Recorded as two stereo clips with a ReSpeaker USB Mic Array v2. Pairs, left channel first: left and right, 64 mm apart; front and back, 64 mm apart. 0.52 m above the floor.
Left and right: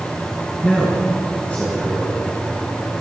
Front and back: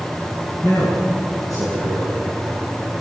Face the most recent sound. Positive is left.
turn(degrees=25)